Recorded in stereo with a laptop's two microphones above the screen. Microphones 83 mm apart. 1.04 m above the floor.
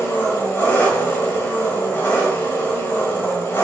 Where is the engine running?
25° left (ahead or behind), 1.0 m.